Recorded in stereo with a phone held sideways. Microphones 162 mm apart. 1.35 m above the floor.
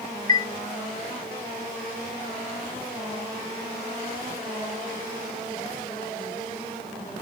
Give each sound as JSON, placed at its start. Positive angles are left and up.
{"t": 0.3, "sound": "a chime", "side_deg": 30, "distance_m": 2.0}